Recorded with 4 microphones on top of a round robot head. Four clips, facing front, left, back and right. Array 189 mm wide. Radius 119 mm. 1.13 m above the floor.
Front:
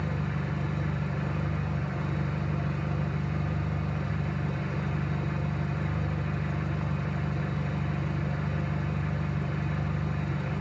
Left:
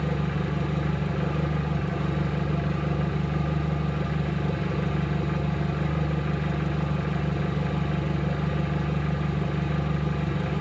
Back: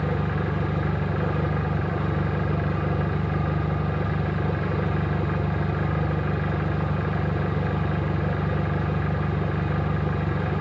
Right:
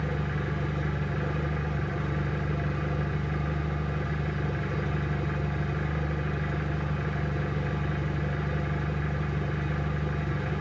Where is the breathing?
I don't hear breathing.